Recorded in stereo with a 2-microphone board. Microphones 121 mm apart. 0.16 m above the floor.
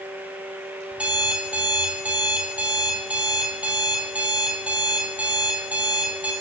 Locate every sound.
0.9 s an alarm clock: 10° right (ahead or behind), 1.8 m